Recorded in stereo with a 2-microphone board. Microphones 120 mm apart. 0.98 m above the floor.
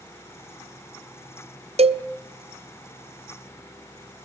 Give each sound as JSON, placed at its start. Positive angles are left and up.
{"t": 1.8, "sound": "a cowbell", "side_deg": -55, "distance_m": 0.9}